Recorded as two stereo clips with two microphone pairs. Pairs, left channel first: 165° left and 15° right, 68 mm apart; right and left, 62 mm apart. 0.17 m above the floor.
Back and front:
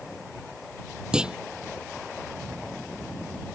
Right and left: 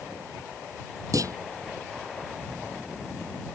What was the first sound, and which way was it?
A clunk, 65° left.